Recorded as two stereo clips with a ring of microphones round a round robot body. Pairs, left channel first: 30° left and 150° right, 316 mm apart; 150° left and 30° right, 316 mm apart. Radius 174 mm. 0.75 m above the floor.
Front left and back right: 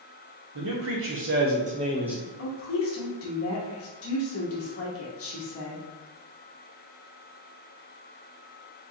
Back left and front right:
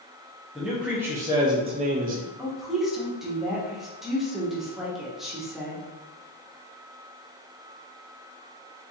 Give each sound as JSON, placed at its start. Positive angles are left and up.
{"t": 0.6, "sound": "a man speaking", "azimuth_deg": -120, "distance_m": 1.2}
{"t": 2.4, "sound": "a woman speaking", "azimuth_deg": 60, "distance_m": 1.4}